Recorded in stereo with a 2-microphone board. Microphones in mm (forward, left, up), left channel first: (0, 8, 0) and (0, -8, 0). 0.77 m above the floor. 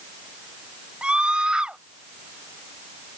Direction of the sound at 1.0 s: 75° right (ahead or behind).